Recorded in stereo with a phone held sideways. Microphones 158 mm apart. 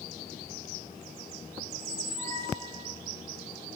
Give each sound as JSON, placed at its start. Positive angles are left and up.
{"t": 1.7, "sound": "a squeak", "side_deg": 20, "distance_m": 1.6}